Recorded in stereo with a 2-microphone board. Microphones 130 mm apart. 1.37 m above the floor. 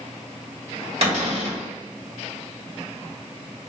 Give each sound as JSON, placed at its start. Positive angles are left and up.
{"t": 1.0, "sound": "a cupboard door", "side_deg": -50, "distance_m": 1.9}